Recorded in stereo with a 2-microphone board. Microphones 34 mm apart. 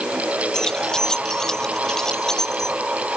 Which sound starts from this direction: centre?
Keys jangling, at 0.5 s.